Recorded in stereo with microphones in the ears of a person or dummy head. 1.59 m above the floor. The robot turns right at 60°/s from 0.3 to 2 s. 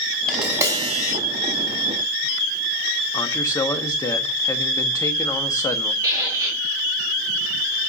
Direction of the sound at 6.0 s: 10° right (ahead or behind).